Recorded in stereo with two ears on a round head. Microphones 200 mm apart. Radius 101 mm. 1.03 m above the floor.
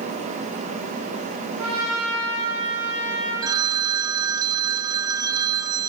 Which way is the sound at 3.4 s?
15° right (ahead or behind).